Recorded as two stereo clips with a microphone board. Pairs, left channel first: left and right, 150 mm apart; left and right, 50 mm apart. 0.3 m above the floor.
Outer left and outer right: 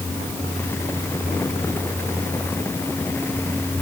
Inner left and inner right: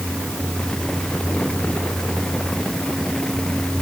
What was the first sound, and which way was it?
Only background noise.